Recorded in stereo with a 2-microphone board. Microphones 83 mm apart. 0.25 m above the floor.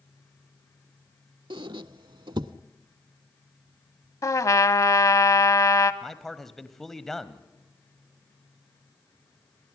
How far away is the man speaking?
About 1.1 m.